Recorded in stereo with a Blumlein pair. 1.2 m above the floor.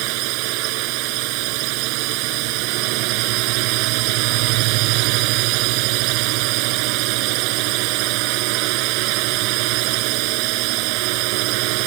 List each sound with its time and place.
0.0 s a drone: 45° right